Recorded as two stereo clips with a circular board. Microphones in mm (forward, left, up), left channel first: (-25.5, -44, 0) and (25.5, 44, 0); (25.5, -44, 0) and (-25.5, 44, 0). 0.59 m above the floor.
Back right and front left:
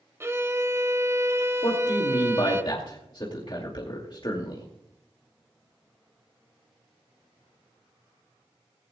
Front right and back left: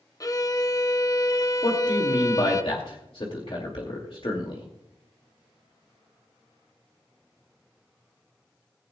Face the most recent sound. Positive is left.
turn(degrees=-85)